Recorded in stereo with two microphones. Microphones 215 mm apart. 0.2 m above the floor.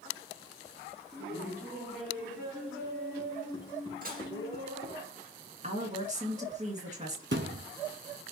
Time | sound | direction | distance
1.1 | laughter | 10° right (ahead or behind) | 1.9 m
4.0 | dishes clattering | 45° right (ahead or behind) | 2 m
5.6 | a woman speaking | 35° right (ahead or behind) | 2.0 m
7.3 | a thud | 60° right (ahead or behind) | 0.8 m